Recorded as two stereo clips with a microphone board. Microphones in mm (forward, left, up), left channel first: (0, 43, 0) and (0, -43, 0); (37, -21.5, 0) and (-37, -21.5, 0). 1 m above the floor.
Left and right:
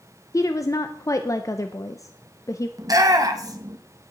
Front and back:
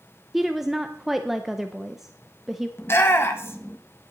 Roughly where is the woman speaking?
Left.